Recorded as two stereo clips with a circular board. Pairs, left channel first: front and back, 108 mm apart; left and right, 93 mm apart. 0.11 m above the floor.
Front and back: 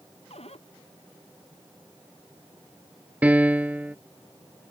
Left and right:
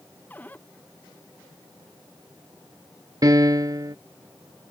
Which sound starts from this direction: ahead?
A cupboard door, at 0.3 s.